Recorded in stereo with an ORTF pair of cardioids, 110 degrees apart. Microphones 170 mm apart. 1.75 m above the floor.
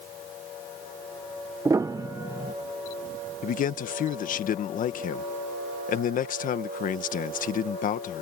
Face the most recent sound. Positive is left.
turn(degrees=55)